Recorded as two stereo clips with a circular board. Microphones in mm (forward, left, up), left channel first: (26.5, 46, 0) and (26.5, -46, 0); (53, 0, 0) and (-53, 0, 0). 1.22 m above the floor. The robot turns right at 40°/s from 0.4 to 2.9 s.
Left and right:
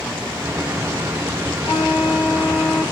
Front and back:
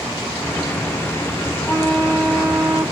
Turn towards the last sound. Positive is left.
turn(degrees=110)